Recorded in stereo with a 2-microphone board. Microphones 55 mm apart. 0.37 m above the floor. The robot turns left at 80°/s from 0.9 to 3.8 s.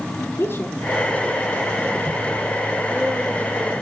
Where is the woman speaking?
40° left (ahead or behind), 5 m; by 3.7 s 5° left (ahead or behind), 5 m.